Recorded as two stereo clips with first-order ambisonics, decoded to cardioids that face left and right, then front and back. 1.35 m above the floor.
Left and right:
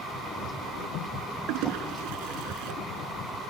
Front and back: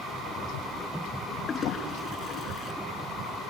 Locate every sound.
1.5 s a toilet flushing: 65° right